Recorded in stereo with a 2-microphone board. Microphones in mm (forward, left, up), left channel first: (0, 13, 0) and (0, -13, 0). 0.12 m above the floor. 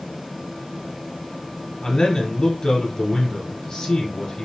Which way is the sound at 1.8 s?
25° left (ahead or behind).